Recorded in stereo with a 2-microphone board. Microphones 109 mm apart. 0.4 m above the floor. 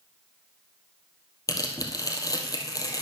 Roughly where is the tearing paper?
Left.